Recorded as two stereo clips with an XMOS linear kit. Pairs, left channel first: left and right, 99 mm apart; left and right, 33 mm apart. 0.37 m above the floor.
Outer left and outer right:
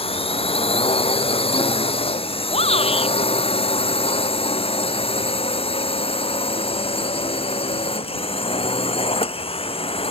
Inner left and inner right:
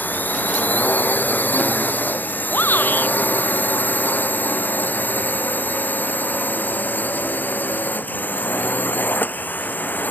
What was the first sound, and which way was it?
A drone, 75° left (ahead or behind).